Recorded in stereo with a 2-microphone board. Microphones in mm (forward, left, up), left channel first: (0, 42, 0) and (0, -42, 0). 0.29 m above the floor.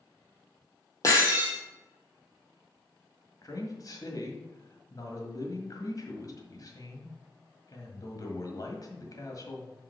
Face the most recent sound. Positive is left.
turn(degrees=45)  # may be behind; listen again after turning